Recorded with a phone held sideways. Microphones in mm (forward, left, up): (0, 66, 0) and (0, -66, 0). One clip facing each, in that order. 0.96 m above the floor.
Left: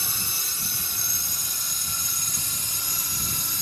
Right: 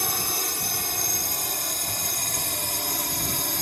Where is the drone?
60° right (ahead or behind).